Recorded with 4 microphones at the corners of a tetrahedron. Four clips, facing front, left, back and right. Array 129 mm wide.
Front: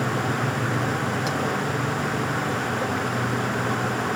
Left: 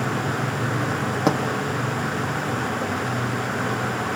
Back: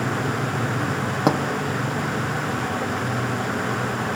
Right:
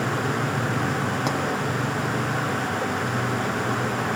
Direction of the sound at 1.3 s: 150° left.